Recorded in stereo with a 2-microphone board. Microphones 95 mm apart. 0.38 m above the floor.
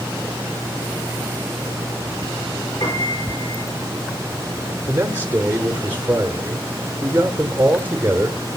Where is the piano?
65° left (ahead or behind), 4.5 m.